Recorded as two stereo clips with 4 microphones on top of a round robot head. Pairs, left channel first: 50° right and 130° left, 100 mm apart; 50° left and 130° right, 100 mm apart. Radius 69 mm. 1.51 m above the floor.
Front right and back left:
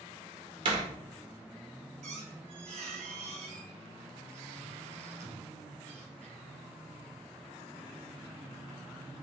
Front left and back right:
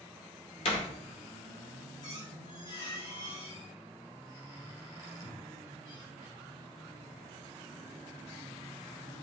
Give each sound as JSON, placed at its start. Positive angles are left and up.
{"t": 0.7, "sound": "a door slam", "azimuth_deg": 85, "distance_m": 1.8}
{"t": 2.0, "sound": "a squeak", "azimuth_deg": 100, "distance_m": 3.5}